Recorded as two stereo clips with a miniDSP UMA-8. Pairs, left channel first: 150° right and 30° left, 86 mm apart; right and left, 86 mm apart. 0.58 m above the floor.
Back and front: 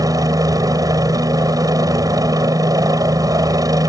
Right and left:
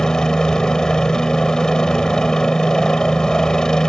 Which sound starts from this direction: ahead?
A helicopter, at 0.0 s.